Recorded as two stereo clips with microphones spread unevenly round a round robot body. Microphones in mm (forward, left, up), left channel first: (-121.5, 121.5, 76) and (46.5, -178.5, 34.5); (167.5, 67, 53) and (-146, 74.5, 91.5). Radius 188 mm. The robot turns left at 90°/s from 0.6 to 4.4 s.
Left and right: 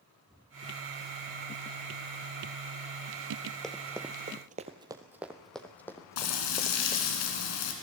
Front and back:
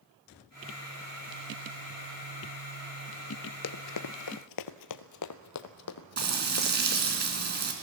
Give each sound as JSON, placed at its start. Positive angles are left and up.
{"t": 3.6, "sound": "running footsteps", "azimuth_deg": 35, "distance_m": 0.7}
{"t": 6.2, "sound": "frying", "azimuth_deg": 120, "distance_m": 4.0}